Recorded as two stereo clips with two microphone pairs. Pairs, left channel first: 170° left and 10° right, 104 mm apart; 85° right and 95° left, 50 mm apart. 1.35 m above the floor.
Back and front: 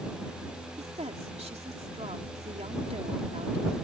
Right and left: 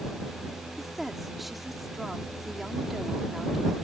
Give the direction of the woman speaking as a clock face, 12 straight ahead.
12 o'clock.